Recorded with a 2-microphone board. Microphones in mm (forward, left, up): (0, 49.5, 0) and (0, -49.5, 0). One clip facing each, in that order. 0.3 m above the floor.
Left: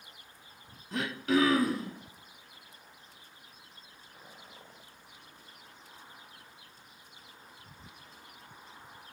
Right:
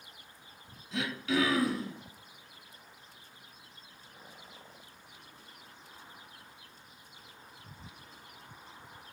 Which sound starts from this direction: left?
Throat clearing, at 0.9 s.